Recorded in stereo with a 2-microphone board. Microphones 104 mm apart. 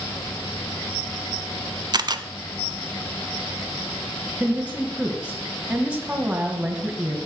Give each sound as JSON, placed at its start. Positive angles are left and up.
{"t": 1.9, "sound": "a camera shutter", "side_deg": -45, "distance_m": 0.7}
{"t": 4.4, "sound": "a woman speaking", "side_deg": -10, "distance_m": 1.7}